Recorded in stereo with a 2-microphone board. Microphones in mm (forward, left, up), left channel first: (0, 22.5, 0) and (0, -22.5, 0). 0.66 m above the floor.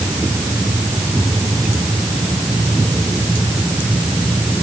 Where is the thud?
No thud in this recording.